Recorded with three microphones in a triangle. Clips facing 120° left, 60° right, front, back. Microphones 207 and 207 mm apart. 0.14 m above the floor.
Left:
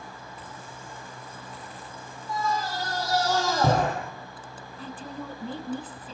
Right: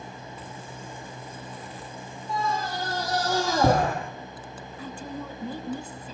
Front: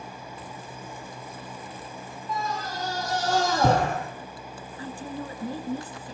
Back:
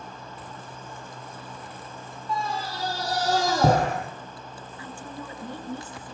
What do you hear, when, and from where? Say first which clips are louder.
2.3 s a scream: even, back 1 dB; 125° right, 5 m; by 4.0 s 140° right, 5 m
4.8 s a woman speaking: right 1 dB, front 5 dB; 30° left, 1.6 m